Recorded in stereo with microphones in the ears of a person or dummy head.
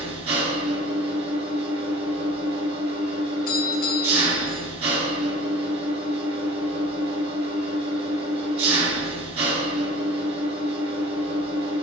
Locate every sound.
0.0 s an engine running: 30° right (ahead or behind), 3.5 m
3.5 s a doorbell: 35° left (ahead or behind), 1.9 m